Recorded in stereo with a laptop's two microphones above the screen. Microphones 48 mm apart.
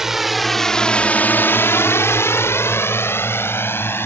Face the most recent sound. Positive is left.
turn(degrees=55)  # may be behind; listen again after turning